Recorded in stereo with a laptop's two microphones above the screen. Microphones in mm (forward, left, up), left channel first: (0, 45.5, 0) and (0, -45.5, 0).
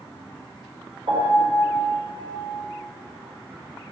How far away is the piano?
About 5 m.